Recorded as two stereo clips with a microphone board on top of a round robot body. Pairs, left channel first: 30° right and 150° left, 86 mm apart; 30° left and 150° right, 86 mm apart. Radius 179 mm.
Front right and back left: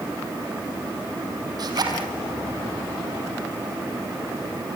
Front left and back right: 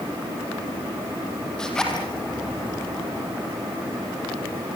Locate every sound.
1.6 s a zipper: 110° left, 4 m